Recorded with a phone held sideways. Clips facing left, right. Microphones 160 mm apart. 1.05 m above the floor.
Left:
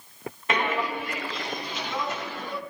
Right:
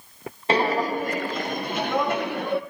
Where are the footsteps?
30° right (ahead or behind), 1.2 m; by 2.6 s 65° right (ahead or behind), 2 m.